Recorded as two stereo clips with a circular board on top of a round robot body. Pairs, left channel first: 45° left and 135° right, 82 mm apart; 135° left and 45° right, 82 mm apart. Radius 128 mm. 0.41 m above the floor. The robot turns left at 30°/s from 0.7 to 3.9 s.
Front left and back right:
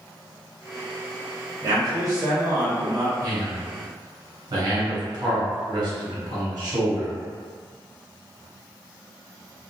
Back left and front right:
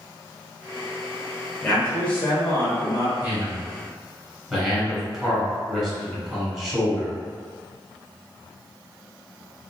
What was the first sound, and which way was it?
A man speaking, 150° right.